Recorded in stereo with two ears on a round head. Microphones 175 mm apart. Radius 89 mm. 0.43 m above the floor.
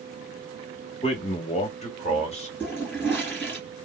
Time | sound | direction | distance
1.0 | a man speaking | 30° left (ahead or behind) | 0.9 m
2.6 | a toilet flushing | 10° left (ahead or behind) | 1.9 m